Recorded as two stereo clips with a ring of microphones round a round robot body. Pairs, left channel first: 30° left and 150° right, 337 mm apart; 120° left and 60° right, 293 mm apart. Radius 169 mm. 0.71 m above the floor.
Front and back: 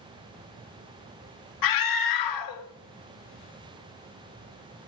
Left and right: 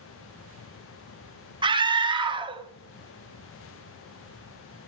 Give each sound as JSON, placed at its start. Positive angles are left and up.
{"t": 1.6, "sound": "a scream", "azimuth_deg": 15, "distance_m": 1.8}